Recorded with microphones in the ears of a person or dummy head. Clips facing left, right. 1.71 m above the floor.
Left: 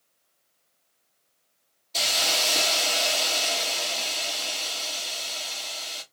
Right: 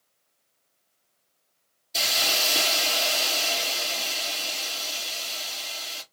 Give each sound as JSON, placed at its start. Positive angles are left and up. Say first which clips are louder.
{"t": 1.9, "sound": "a hiss", "louder": "left 1 dB", "side_deg": -10, "distance_m": 1.4}